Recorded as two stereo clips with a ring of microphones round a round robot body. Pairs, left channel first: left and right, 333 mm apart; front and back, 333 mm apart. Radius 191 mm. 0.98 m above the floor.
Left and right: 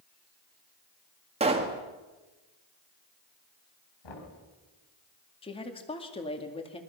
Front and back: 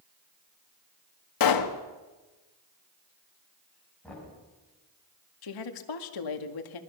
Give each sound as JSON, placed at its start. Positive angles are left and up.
{"t": 1.4, "sound": "a pop", "azimuth_deg": -15, "distance_m": 1.8}
{"t": 4.0, "sound": "knocking", "azimuth_deg": 85, "distance_m": 6.5}
{"t": 5.4, "sound": "a woman speaking", "azimuth_deg": 15, "distance_m": 2.0}